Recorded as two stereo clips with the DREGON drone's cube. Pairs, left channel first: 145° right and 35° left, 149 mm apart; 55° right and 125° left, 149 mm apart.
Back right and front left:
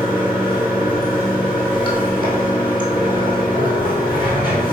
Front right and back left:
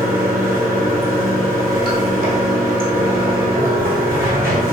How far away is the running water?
About 1.3 m.